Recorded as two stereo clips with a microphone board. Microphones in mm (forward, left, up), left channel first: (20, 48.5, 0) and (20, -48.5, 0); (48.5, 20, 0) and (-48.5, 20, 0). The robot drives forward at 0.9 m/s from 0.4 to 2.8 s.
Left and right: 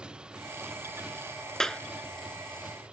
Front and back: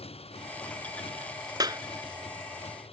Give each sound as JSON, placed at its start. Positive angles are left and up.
{"t": 0.0, "sound": "a motorcycle", "azimuth_deg": -10}
{"t": 1.6, "sound": "a clap", "azimuth_deg": 170}